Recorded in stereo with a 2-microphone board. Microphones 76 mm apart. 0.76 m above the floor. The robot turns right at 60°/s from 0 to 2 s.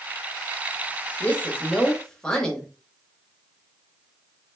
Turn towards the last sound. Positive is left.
turn(degrees=10)  # may be behind; listen again after turning